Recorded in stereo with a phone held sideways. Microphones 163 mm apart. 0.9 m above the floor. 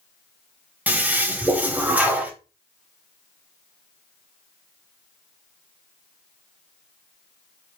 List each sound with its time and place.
0.9 s a toilet flushing: 10° right (ahead or behind), 0.7 m